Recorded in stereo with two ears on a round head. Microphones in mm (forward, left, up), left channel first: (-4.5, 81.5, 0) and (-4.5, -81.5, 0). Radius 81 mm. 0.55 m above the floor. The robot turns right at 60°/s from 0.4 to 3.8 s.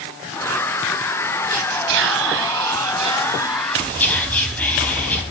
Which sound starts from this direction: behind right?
Whispering, at 1.5 s.